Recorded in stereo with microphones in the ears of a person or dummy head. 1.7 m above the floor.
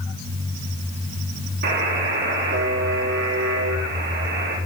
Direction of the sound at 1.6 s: 65° right (ahead or behind).